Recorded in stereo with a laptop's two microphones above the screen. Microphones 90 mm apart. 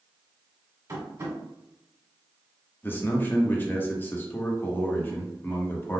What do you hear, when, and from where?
0.9 s tapping: 40° right (ahead or behind), 1.8 m
2.8 s a man speaking: 25° left (ahead or behind), 0.9 m